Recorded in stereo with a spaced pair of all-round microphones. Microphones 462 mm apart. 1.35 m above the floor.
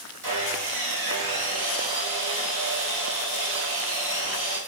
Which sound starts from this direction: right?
Sawing, at 0.2 s.